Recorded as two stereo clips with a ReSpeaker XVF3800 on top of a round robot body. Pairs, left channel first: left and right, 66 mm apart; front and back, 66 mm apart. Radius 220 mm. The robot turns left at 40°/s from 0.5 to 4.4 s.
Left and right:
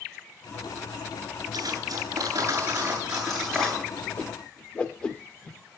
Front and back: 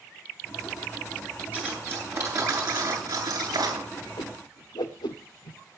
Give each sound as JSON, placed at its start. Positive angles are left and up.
{"t": 1.5, "sound": "cutlery clinking", "azimuth_deg": -105, "distance_m": 9.0}
{"t": 4.2, "sound": "a whoosh", "azimuth_deg": 25, "distance_m": 0.8}